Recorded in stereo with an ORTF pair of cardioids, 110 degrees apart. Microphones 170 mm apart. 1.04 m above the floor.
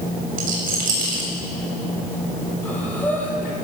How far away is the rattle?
About 7 m.